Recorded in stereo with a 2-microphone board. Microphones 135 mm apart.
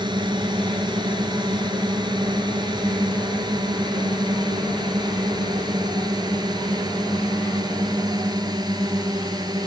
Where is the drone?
35° right (ahead or behind); by 9.7 s 30° right (ahead or behind).